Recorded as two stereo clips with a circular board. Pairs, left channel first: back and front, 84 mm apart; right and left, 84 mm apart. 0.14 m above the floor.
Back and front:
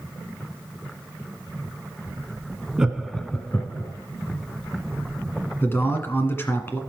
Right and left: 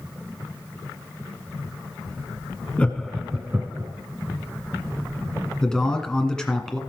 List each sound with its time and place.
2.8 s laughter: 55° right, 1.2 m; by 3.9 s 135° left, 1.6 m
5.6 s a man speaking: 160° right, 1.7 m